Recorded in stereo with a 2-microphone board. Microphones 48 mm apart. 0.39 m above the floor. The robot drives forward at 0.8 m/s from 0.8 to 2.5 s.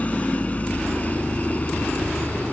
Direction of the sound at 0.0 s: 30° left (ahead or behind).